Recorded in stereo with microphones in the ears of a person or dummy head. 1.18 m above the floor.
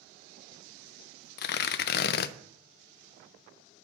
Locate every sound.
1.4 s tearing paper: 55° left (ahead or behind), 0.5 m